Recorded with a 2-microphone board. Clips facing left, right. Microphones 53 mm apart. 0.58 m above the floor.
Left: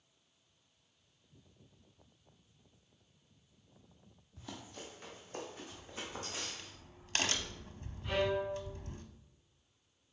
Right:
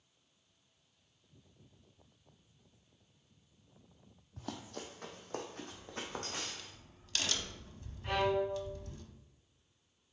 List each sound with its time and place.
4.4 s running footsteps: 60° right (ahead or behind), 1.1 m; by 6.7 s 50° right (ahead or behind), 2.5 m
5.7 s a crack: 40° left (ahead or behind), 0.7 m
8.0 s a violin: 50° right (ahead or behind), 2.5 m